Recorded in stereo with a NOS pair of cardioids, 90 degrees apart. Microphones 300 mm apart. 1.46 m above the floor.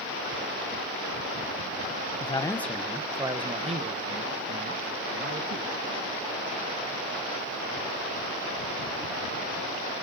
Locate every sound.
2.2 s a man speaking: 20° left, 1.0 m; by 5.7 s 40° right, 3 m